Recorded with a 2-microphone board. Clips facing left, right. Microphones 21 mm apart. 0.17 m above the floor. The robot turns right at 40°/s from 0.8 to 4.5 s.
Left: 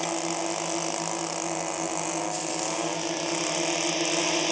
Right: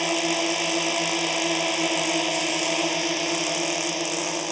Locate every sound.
0.0 s a drone: 125° right; by 4.5 s 25° left